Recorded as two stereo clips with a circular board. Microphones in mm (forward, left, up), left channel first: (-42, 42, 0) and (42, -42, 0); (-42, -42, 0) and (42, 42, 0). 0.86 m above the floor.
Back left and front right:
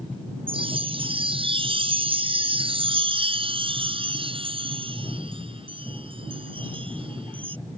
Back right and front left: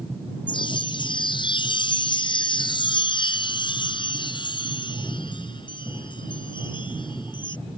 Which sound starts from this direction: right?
A chime, at 0.5 s.